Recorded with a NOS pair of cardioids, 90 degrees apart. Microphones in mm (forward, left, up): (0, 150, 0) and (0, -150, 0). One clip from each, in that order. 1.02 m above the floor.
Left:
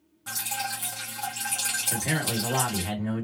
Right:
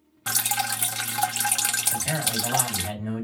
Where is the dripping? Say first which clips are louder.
Right 5 dB; 55° right, 0.6 m.